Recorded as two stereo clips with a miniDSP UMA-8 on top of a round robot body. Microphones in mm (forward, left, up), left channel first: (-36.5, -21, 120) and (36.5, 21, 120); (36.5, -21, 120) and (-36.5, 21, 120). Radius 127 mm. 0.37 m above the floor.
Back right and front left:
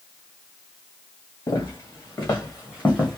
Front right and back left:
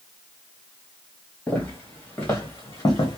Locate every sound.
1.5 s footsteps: 100° right, 2 m; by 3.2 s 65° right, 1.0 m